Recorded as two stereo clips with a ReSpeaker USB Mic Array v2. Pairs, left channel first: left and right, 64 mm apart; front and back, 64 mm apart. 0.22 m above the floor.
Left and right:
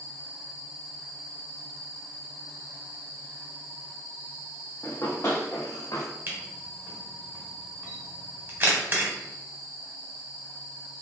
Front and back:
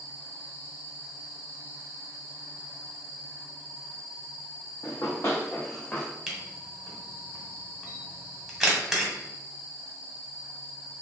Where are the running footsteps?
35° left, 1.2 m; by 6.1 s 70° left, 1.2 m.